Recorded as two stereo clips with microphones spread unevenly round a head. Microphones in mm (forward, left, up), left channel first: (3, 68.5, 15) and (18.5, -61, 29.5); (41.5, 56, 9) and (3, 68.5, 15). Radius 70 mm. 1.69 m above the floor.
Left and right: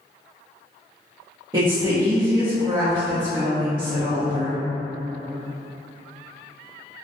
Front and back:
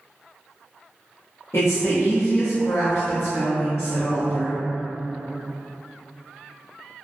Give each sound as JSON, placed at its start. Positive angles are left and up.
{"t": 1.5, "sound": "a woman speaking", "azimuth_deg": -30, "distance_m": 0.5}